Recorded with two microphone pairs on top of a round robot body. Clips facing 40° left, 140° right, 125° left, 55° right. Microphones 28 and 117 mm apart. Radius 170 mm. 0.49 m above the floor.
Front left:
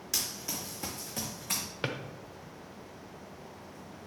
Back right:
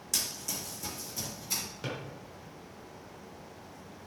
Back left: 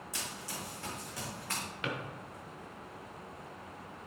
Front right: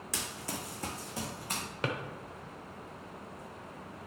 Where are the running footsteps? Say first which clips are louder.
Even, front right 4 dB; 35° right, 1.6 m; by 1.6 s 25° left, 1.9 m.